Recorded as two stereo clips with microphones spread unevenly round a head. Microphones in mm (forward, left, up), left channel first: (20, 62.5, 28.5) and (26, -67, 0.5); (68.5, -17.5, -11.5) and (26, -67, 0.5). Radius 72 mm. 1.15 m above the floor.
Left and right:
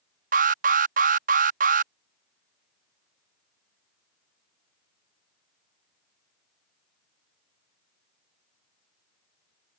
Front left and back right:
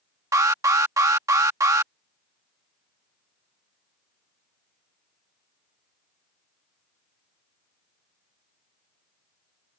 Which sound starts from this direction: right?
An alarm, at 0.3 s.